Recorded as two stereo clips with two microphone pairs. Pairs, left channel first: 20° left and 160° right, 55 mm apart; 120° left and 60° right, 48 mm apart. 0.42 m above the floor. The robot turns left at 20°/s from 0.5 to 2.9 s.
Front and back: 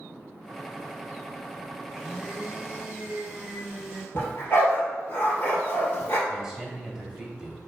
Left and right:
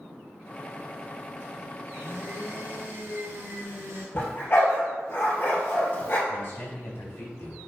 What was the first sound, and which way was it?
A blender, 70° right.